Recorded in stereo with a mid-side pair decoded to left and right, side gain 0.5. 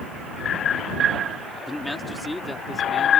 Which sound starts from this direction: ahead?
A man speaking, at 1.7 s.